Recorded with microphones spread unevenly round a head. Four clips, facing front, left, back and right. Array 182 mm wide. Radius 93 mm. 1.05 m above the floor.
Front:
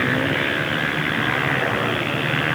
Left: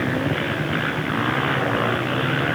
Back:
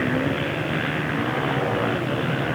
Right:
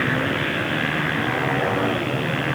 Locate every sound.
Only background noise.